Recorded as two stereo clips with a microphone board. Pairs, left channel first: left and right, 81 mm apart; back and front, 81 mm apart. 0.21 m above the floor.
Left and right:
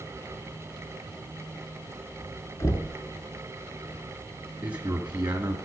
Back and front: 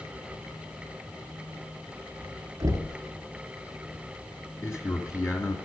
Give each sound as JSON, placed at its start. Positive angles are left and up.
{"t": 2.6, "sound": "knocking", "azimuth_deg": 45, "distance_m": 1.9}
{"t": 4.6, "sound": "a man speaking", "azimuth_deg": -150, "distance_m": 1.7}